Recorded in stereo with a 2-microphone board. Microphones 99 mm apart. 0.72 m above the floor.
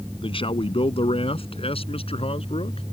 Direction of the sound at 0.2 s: 60° left (ahead or behind).